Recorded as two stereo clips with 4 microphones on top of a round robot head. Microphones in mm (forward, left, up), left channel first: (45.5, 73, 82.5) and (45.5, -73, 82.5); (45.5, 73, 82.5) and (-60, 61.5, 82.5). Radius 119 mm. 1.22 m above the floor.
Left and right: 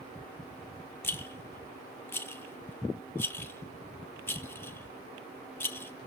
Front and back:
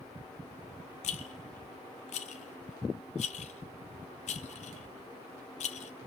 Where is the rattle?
15° left, 0.7 m.